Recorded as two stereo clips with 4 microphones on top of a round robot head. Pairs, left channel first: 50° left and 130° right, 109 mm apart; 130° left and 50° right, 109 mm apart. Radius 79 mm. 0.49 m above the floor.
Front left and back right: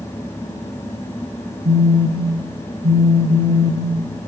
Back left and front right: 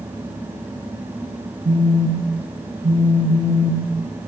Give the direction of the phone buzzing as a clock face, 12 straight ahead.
3 o'clock.